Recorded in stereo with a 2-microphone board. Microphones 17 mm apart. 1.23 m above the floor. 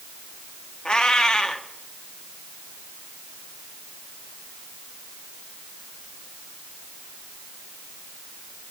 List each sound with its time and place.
0.8 s a cat meowing: 55° left (ahead or behind), 0.9 m